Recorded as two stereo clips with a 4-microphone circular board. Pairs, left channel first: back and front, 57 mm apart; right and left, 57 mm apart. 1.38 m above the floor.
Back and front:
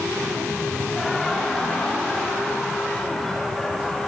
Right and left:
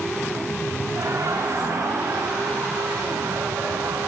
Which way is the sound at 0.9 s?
95° left.